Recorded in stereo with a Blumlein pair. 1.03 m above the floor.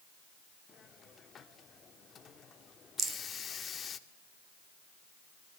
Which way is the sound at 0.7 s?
20° left.